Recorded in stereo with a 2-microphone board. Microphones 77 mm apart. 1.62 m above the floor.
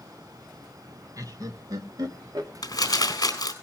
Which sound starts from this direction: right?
Laughter, at 1.2 s.